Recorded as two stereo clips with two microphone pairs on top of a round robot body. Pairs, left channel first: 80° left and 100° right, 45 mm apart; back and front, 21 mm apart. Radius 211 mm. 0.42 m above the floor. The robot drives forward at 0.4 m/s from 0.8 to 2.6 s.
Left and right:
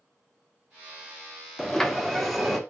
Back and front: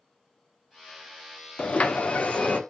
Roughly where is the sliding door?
Behind.